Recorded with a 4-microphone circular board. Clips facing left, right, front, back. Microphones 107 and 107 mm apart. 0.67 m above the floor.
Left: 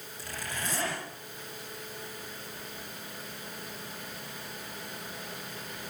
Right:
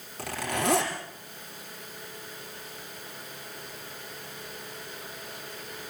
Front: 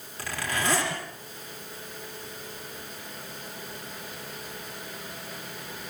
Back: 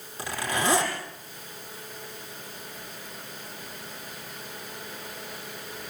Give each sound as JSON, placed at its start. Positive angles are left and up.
{"t": 0.2, "sound": "a zipper", "azimuth_deg": -110, "distance_m": 7.0}